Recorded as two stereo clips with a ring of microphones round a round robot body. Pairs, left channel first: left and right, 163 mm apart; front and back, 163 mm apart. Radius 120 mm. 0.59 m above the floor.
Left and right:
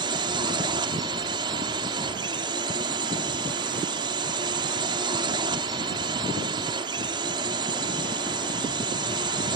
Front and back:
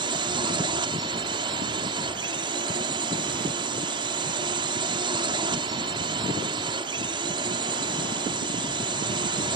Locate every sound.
0.0 s a drone: 135° right